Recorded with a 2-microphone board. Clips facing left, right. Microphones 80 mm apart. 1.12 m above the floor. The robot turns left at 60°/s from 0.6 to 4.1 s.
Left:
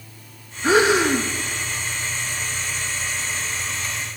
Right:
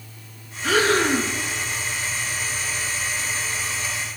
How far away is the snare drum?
I don't hear a snare drum.